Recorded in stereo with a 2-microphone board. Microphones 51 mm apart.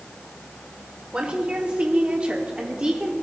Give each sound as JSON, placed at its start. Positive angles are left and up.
{"t": 1.1, "sound": "a woman speaking", "side_deg": -20, "distance_m": 1.4}